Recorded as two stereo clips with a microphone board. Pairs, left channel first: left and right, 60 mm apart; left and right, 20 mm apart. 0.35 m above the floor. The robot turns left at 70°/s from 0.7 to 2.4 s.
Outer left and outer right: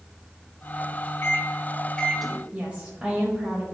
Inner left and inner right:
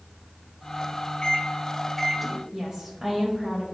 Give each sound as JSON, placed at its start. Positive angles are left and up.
{"t": 1.2, "sound": "a microwave", "side_deg": 40, "distance_m": 0.8}
{"t": 2.5, "sound": "a woman speaking", "side_deg": -25, "distance_m": 1.5}